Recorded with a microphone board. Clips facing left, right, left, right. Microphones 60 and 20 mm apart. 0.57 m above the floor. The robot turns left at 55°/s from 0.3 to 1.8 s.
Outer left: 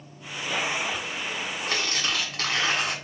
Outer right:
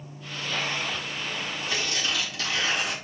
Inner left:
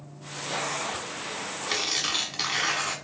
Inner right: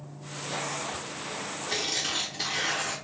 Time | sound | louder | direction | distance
1.7 | tearing paper | outer left 1 dB, inner left 3 dB | 50° left (ahead or behind) | 1.2 m